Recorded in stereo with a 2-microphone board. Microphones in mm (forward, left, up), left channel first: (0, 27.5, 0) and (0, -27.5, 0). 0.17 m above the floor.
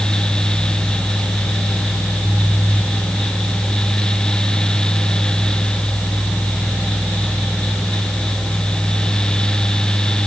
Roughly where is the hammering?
No hammering in this recording.